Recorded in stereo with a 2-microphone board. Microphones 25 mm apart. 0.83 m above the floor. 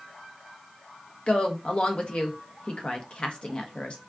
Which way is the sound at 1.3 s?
40° left (ahead or behind).